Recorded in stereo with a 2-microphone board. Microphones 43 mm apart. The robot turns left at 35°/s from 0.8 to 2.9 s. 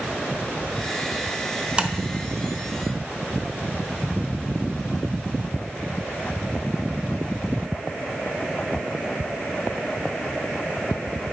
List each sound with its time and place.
1.8 s tapping: 25° right (ahead or behind), 0.7 m